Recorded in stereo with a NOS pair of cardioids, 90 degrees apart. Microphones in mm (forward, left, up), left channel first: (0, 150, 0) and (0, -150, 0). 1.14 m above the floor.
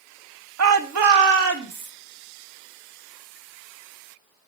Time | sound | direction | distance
0.6 | a shout | 60° right | 1.6 m